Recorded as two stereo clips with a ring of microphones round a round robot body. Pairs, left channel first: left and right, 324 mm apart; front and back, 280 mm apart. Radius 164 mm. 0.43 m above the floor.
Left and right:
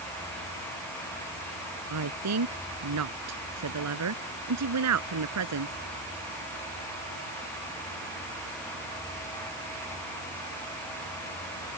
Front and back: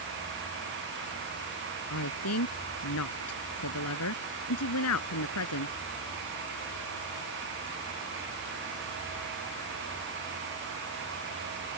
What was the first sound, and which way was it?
A woman speaking, 45° right.